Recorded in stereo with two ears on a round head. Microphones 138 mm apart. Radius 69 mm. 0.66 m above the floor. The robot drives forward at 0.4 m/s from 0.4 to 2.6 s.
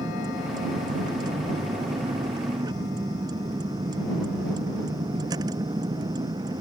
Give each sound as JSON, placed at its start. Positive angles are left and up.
{"t": 0.0, "sound": "a vehicle", "side_deg": -25}